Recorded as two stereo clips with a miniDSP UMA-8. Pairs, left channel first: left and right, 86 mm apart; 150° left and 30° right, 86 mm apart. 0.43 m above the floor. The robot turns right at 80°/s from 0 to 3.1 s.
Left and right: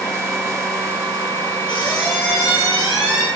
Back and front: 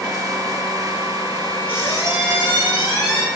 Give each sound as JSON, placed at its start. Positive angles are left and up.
{"t": 1.7, "sound": "a squeak", "azimuth_deg": 85, "distance_m": 1.5}